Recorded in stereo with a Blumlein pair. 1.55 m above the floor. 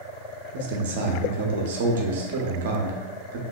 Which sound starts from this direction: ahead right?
A man speaking, at 0.5 s.